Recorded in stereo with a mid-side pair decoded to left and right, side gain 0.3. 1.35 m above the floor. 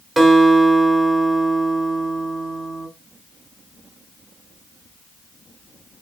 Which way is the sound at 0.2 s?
40° right.